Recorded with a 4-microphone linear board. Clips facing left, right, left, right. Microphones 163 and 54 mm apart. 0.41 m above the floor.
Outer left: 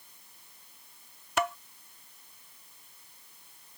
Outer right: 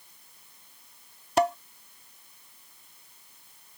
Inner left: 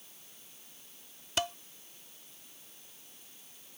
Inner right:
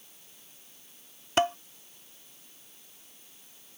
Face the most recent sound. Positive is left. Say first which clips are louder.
# outer right 7 dB, inner right 9 dB
turn(degrees=-35)  # may be behind; listen again after turning